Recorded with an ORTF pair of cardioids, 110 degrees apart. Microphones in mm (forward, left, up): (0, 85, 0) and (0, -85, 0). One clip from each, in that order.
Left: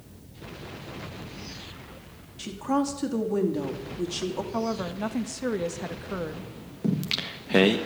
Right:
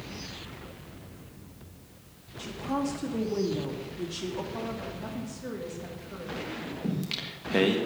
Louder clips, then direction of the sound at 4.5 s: Left 6 dB; 60° left.